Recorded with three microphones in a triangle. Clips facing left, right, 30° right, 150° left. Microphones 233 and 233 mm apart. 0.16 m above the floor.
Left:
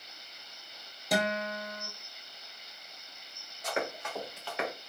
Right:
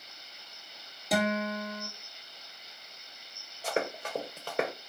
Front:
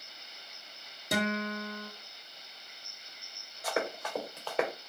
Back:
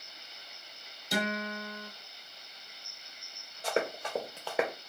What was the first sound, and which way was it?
A guitar, straight ahead.